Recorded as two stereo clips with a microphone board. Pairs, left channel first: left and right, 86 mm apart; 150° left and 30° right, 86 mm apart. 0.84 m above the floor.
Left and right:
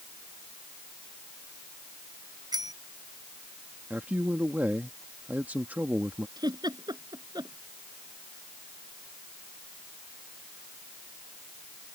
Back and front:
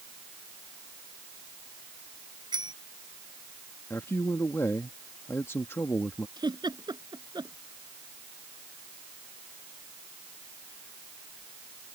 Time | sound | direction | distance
2.5 | a bicycle bell | 55° right | ?
3.9 | a man speaking | 155° right | ?
6.4 | a giggle | 55° right | ?